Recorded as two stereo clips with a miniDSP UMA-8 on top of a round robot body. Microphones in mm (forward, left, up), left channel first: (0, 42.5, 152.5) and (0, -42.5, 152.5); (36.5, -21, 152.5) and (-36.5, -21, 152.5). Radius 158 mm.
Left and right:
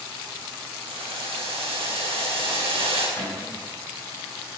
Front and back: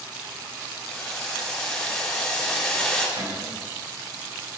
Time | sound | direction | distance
0.9 | boiling | 80° right | 6 m
3.2 | a cupboard door | 155° left | 5.5 m